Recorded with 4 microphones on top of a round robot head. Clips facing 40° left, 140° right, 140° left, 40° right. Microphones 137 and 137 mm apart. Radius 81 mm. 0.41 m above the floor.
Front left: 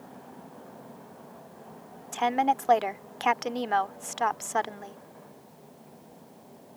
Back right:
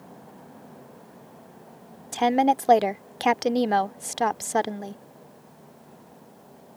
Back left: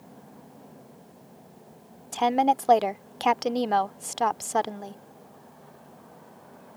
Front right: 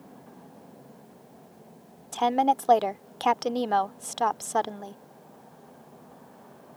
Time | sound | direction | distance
2.1 | a woman speaking | 140° right | ?